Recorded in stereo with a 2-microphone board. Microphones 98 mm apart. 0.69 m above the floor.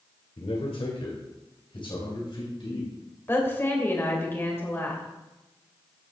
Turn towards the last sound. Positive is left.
turn(degrees=25)  # may be behind; listen again after turning